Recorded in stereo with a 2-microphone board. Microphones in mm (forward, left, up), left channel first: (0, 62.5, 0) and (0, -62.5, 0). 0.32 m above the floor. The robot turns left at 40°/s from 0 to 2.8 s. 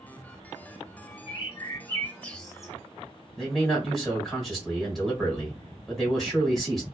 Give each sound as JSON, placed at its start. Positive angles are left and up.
{"t": 1.3, "sound": "a bird", "azimuth_deg": 50, "distance_m": 0.7}
{"t": 3.4, "sound": "a man speaking", "side_deg": 0, "distance_m": 1.3}